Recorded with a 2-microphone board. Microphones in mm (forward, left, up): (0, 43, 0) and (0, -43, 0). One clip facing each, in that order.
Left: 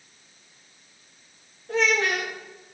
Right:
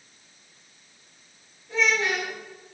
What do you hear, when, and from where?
1.7 s a child speaking: 55° left (ahead or behind), 3 m